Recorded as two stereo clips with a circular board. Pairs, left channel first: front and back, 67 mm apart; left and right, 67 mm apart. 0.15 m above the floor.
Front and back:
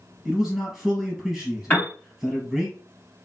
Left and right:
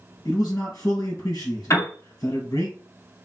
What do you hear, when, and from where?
0.2 s a man speaking: 95° left, 2.5 m
1.7 s a piano: 60° left, 2.5 m